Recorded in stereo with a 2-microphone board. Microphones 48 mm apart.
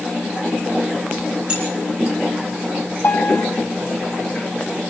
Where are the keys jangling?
20° right (ahead or behind), 6.5 m.